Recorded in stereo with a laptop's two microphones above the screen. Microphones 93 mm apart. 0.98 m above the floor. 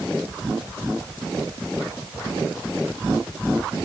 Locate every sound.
Only background noise.